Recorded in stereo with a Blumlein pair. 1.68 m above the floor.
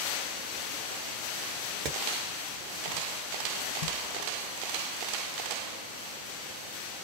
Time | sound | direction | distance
1.9 | hammering | 30° right | 0.8 m